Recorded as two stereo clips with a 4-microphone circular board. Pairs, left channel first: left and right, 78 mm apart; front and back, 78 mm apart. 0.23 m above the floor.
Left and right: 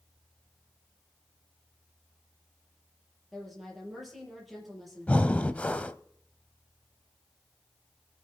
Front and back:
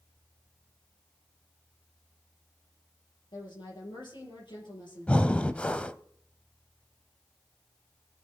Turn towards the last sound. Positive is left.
turn(degrees=45)